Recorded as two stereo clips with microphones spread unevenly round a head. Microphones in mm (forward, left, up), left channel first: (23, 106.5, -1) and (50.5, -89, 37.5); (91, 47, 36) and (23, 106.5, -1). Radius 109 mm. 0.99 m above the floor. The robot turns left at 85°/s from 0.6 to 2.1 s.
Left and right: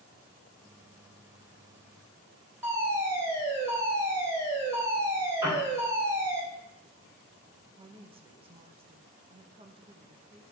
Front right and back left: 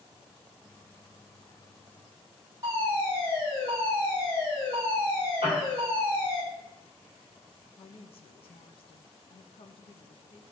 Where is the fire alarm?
165° right, 3.5 m.